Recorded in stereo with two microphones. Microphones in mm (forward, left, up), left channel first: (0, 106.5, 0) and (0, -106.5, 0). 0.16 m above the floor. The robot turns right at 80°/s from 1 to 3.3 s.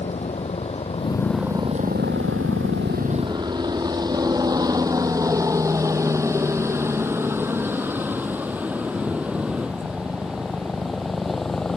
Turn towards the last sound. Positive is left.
turn(degrees=0)  # may be behind; listen again after turning